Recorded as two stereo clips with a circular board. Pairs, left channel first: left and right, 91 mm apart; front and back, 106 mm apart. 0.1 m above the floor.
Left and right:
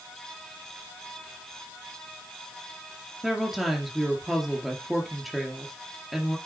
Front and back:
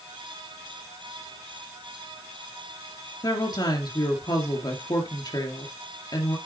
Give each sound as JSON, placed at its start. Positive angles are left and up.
{"t": 3.2, "sound": "a woman speaking", "azimuth_deg": 0, "distance_m": 2.0}